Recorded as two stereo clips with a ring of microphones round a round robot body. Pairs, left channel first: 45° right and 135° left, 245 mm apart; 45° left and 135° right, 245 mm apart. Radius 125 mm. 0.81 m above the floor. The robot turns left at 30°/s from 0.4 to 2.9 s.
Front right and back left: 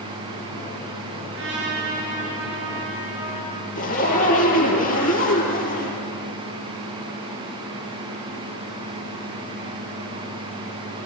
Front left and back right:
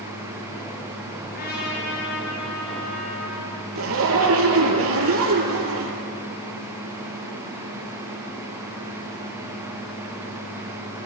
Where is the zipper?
100° right, 5.5 m.